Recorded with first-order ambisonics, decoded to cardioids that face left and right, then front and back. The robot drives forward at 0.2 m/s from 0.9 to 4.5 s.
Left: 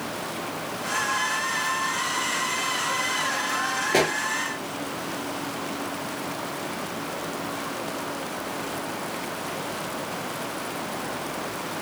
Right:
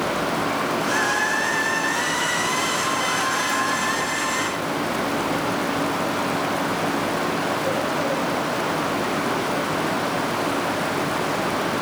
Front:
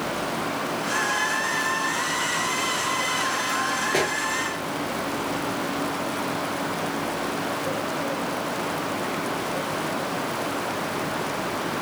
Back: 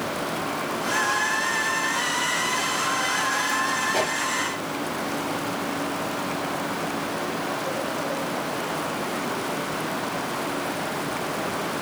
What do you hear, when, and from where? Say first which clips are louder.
3.9 s a pop: left 2 dB, even; 70° left, 2.5 m